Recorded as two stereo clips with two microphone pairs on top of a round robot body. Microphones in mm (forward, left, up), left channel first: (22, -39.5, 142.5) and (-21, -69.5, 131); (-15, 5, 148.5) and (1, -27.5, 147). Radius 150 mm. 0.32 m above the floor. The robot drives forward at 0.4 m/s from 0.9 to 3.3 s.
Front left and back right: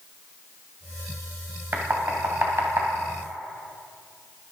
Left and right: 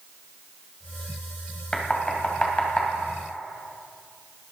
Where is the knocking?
Straight behind, 2.5 m.